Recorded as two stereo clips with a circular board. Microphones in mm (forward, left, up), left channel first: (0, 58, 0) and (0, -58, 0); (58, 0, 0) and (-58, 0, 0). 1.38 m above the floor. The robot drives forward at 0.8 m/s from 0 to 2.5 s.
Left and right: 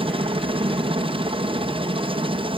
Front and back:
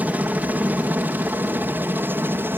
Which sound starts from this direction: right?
A helicopter, at 0.0 s.